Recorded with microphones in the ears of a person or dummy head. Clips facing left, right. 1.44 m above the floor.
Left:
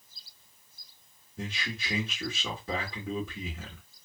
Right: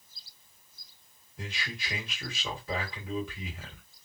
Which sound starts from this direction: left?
A man speaking, at 1.4 s.